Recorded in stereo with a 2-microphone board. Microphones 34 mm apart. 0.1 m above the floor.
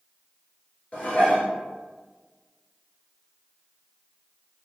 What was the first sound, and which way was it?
Dishes clattering, 35° left (ahead or behind).